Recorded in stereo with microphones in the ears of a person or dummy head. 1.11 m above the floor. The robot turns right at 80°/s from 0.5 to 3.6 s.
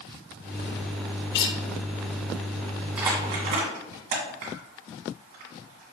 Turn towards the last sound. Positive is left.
turn(degrees=-50)  # may be behind; listen again after turning